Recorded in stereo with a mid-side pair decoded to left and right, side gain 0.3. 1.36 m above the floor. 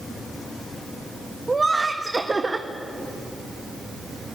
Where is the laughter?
35° right, 1.3 m.